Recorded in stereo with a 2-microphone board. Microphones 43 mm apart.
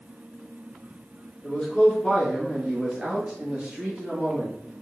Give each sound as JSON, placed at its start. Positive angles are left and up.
{"t": 1.4, "sound": "a man speaking", "side_deg": 25, "distance_m": 1.2}